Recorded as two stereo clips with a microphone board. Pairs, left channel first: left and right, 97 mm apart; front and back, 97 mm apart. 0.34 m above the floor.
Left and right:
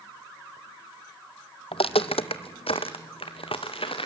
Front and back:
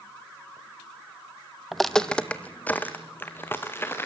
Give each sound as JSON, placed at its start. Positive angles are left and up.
{"t": 1.7, "sound": "footsteps", "azimuth_deg": 90, "distance_m": 0.8}